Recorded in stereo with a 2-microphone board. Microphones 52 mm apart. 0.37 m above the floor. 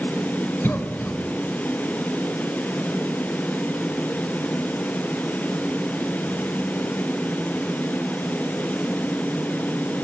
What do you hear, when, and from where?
0.6 s a cough: 45° left (ahead or behind), 1.3 m